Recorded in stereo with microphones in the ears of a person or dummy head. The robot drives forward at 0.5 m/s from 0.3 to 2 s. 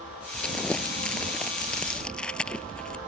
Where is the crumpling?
Centre (ahead or behind).